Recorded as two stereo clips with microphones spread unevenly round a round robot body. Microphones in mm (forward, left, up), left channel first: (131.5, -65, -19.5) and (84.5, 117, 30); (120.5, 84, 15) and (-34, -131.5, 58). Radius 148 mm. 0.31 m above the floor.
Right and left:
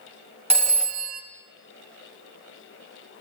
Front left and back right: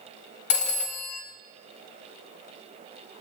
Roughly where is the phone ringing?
Ahead left.